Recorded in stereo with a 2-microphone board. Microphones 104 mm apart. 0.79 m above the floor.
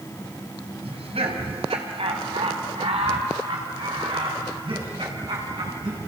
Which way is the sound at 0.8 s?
80° right.